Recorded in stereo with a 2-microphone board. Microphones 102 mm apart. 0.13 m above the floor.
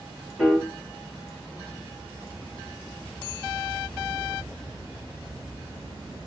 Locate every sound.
0.4 s a piano: 5° right (ahead or behind), 1.9 m